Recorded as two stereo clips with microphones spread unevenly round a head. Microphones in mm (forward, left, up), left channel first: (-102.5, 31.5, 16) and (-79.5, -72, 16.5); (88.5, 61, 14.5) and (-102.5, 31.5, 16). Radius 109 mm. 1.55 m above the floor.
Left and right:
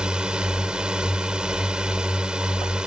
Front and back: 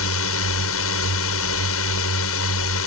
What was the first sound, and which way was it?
A drone, 10° left.